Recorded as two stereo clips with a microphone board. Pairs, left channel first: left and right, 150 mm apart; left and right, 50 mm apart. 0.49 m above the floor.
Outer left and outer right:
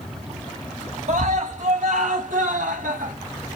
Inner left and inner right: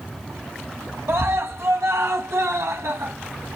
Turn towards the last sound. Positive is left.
turn(degrees=-75)  # may be behind; listen again after turning